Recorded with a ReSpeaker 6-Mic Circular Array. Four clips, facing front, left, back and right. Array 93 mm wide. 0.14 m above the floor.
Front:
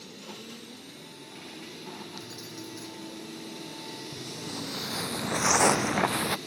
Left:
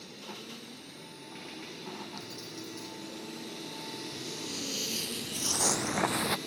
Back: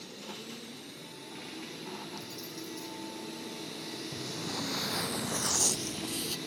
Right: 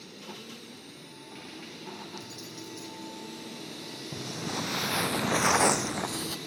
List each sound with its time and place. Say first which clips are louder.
2.2 s keys jangling: even, front 1 dB; 5° right
4.1 s footsteps: right 5 dB, back 2 dB; 105° right; by 6.4 s 30° left